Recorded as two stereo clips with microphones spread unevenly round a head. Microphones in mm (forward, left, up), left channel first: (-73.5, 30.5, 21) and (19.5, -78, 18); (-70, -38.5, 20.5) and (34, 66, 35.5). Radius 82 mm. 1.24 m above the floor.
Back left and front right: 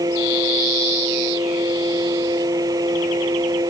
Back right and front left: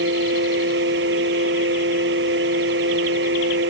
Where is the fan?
20° left.